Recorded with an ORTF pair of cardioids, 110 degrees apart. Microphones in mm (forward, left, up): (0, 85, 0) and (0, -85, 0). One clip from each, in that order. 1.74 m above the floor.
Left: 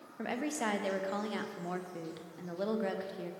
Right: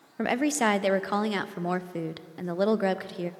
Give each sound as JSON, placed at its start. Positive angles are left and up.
{"t": 0.2, "sound": "a woman speaking", "azimuth_deg": -45, "distance_m": 0.5}